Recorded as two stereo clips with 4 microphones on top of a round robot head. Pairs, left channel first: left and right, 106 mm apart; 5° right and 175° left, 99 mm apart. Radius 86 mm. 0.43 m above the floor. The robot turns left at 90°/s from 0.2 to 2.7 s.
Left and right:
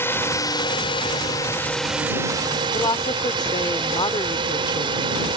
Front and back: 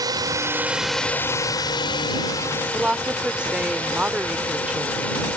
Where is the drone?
150° left; by 5.4 s 75° right.